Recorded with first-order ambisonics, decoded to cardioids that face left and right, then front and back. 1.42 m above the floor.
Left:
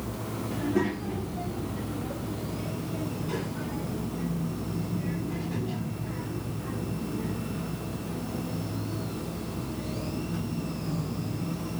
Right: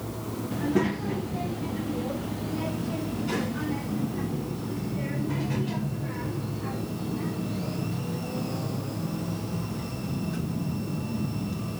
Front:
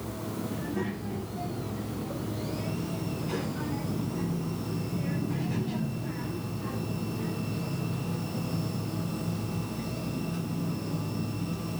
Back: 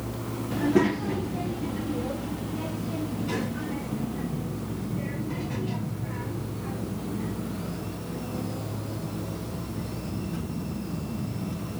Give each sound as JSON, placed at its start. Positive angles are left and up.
{"t": 0.5, "sound": "a child speaking", "azimuth_deg": -170, "distance_m": 1.0}